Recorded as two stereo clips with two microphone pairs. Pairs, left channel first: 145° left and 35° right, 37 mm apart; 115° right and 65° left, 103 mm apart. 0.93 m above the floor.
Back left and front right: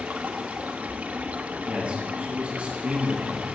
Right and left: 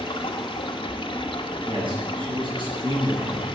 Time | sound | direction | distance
0.0 | running water | 80° right | 1.2 m
1.7 | a man speaking | 25° left | 7 m